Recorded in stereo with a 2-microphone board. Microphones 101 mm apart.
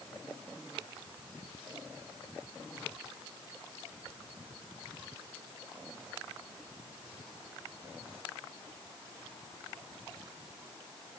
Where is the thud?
I don't hear a thud.